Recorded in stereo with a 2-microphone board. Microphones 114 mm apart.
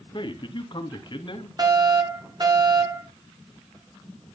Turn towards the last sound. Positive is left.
turn(degrees=-35)  # may be behind; listen again after turning